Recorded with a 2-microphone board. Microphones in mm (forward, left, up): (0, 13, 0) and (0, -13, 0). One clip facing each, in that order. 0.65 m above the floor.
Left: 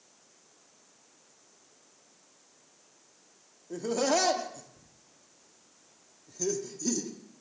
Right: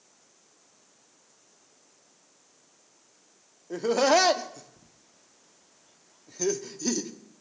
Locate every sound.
3.7 s laughter: 35° right (ahead or behind), 0.8 m